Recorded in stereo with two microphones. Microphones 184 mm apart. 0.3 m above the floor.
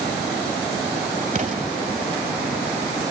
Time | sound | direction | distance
1.4 | an explosion | 45° right (ahead or behind) | 1.4 m